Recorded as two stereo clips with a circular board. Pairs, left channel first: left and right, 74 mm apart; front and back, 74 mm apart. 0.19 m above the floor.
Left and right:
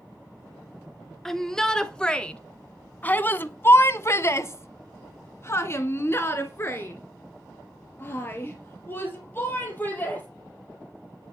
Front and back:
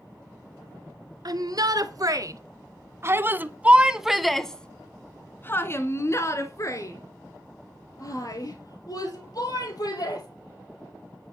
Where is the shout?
175° left, 2 m; by 10.3 s 25° left, 4 m.